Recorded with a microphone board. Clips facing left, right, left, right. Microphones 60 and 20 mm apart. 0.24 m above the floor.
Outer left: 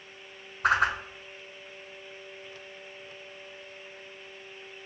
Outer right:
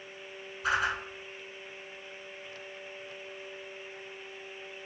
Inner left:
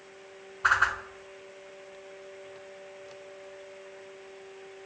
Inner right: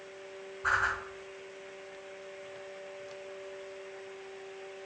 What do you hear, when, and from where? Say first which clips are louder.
0.6 s a whoosh: outer left 5 dB, inner left 5 dB; 55° left (ahead or behind), 0.6 m